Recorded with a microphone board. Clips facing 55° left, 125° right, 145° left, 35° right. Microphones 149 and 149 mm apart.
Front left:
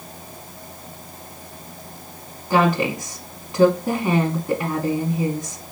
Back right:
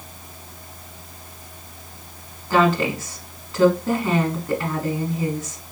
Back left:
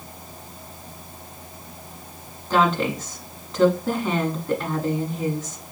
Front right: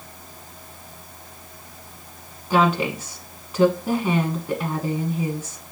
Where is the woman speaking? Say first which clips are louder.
Even, front right 1 dB; 25° left, 1.0 m.